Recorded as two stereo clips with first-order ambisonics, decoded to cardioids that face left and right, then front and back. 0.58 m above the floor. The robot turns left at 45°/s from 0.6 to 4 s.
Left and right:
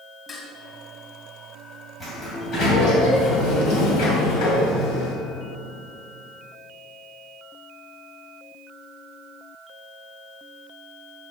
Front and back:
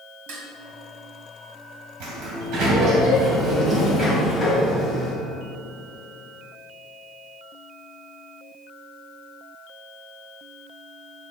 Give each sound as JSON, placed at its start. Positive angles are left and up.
{"t": 0.3, "sound": "dishes clattering", "azimuth_deg": 170, "distance_m": 2.0}
{"t": 2.0, "sound": "a sliding door", "azimuth_deg": 170, "distance_m": 2.5}